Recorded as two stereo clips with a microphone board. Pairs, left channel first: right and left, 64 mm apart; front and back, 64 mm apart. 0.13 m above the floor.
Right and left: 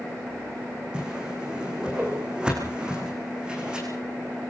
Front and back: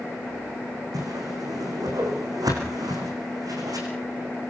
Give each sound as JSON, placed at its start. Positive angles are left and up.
{"t": 0.9, "sound": "a whoosh", "azimuth_deg": 165, "distance_m": 6.5}